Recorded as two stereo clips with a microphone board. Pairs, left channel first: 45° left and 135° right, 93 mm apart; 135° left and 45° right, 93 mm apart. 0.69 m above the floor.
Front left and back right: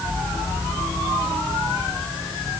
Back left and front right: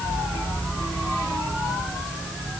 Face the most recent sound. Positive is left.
No sound to turn to.